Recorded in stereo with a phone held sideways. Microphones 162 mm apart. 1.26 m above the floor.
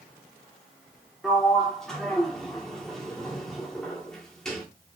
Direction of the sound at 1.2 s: 5° left (ahead or behind).